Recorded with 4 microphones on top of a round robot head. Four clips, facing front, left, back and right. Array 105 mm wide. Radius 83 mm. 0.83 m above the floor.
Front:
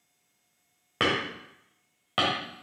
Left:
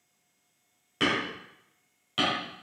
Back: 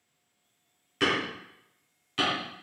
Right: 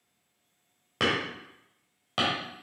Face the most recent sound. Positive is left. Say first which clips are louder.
# even, even
turn(degrees=-25)